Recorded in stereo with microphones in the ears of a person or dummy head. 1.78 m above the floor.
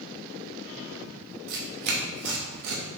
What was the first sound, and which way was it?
Tearing paper, 55° right (ahead or behind).